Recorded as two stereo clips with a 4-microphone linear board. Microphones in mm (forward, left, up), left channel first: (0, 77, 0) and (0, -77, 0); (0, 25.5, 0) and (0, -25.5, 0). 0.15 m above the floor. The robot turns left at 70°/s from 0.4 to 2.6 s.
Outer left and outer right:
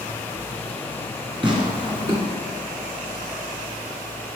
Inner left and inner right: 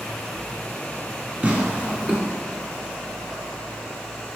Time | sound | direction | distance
1.4 | tearing paper | 35° right (ahead or behind) | 1.9 m